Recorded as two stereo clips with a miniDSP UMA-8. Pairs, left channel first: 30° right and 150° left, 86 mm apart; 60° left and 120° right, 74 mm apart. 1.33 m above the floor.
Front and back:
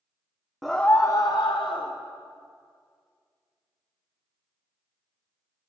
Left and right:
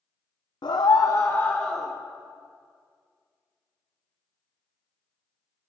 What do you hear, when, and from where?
0.6 s a scream: 60° left, 0.6 m; by 1.9 s 25° right, 0.8 m